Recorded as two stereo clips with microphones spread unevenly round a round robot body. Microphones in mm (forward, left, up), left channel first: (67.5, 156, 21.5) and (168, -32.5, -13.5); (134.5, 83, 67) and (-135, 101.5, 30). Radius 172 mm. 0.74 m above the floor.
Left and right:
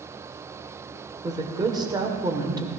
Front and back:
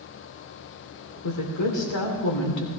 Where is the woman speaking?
10° left, 2.5 m.